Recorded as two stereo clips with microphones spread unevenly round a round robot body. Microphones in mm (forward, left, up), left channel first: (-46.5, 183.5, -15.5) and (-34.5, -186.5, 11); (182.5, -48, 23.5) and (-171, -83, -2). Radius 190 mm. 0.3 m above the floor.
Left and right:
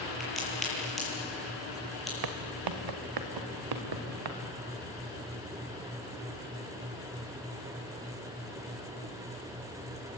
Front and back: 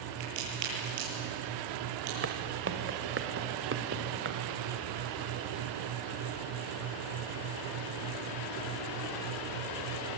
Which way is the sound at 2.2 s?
120° right.